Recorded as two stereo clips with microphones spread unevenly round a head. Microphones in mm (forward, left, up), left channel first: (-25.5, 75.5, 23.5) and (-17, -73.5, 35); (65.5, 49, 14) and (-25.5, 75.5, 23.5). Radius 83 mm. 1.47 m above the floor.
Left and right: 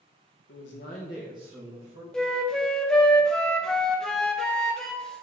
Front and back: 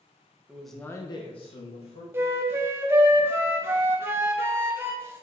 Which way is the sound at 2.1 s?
175° right.